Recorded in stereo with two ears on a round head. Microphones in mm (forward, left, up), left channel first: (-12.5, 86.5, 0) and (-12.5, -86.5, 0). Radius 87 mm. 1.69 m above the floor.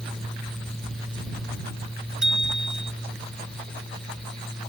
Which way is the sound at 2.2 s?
5° right (ahead or behind).